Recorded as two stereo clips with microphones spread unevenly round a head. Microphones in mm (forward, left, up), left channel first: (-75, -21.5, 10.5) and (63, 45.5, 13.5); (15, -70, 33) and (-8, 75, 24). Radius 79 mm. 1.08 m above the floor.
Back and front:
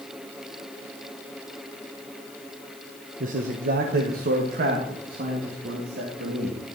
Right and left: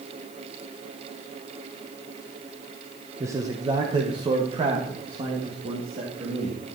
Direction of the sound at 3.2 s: 35° left.